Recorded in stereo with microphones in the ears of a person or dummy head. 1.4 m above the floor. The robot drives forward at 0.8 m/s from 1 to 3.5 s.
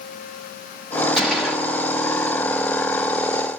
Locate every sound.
1.2 s a gunshot: 5° left (ahead or behind), 2.5 m